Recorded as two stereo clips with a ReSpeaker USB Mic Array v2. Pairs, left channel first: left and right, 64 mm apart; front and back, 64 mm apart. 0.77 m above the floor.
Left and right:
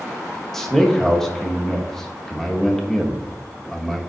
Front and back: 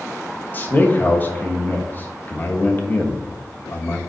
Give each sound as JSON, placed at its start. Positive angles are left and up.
{"t": 0.5, "sound": "a man speaking", "azimuth_deg": 10, "distance_m": 1.1}